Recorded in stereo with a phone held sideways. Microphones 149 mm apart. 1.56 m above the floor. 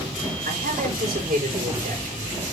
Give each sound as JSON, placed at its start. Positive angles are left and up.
{"t": 0.5, "sound": "a man speaking", "side_deg": -75, "distance_m": 5.0}